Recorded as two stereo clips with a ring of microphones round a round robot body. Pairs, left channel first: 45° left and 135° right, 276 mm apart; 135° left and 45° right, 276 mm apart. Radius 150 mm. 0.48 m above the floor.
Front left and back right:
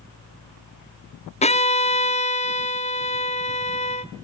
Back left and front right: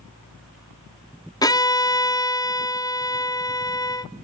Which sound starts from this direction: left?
A violin, at 1.4 s.